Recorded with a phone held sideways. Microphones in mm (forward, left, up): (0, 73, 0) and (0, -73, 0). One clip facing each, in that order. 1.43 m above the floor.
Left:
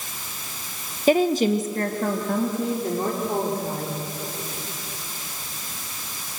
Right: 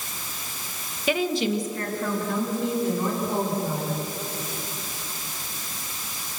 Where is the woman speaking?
40° left (ahead or behind), 1.1 m; by 4.0 s 55° left (ahead or behind), 4.5 m.